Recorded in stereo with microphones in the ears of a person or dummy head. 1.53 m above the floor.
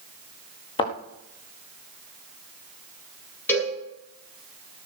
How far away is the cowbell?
About 9 m.